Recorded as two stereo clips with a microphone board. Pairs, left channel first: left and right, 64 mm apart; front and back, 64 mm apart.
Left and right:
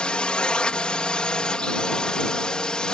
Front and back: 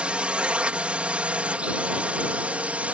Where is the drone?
140° left; by 3.0 s 150° left.